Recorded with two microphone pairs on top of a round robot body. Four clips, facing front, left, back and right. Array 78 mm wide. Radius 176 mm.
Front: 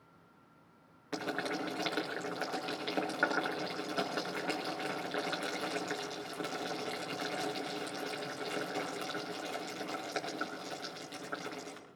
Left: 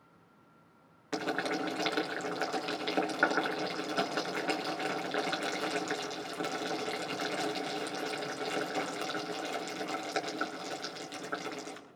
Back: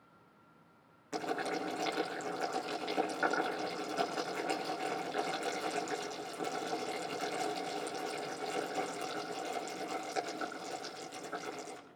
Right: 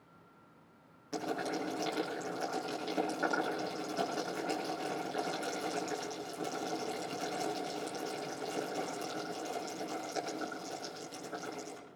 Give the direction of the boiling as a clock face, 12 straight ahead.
10 o'clock.